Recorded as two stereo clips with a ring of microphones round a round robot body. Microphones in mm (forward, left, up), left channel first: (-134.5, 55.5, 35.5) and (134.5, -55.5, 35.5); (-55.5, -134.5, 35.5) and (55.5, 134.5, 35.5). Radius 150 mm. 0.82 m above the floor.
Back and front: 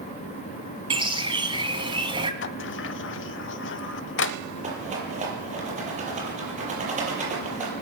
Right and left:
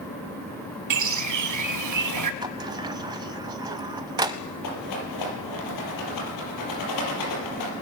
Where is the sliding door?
140° left, 0.7 m.